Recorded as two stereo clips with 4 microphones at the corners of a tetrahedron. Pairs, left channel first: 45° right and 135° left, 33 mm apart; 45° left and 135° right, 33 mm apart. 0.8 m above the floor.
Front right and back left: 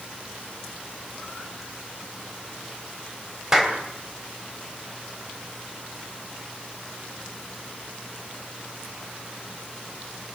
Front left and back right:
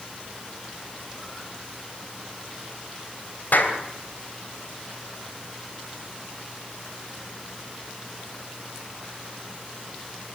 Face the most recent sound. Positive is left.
turn(degrees=60)